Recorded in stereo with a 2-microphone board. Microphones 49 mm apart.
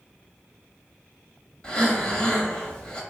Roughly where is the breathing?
Left.